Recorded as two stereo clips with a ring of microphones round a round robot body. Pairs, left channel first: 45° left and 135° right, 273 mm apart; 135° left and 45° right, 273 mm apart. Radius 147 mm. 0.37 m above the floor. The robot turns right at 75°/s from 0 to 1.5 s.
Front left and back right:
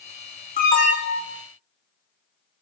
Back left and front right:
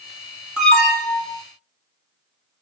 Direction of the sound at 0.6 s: 40° left.